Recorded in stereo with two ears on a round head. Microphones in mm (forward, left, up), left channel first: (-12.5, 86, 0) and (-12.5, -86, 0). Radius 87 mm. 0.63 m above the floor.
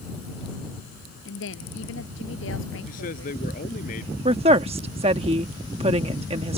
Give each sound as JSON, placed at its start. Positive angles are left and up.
{"t": 1.2, "sound": "a woman speaking", "side_deg": 70}
{"t": 2.9, "sound": "a man speaking", "side_deg": 45}
{"t": 4.2, "sound": "a woman speaking", "side_deg": -30}